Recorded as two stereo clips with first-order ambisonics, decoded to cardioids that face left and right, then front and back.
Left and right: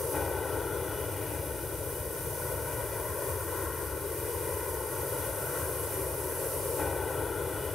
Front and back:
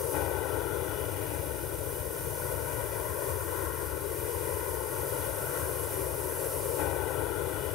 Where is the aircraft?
15° left.